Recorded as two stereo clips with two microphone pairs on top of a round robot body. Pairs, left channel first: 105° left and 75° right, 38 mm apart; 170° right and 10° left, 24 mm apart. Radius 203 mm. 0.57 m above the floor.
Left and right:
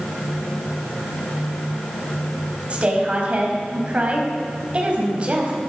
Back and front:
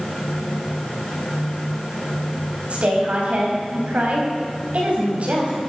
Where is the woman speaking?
20° right, 4 m.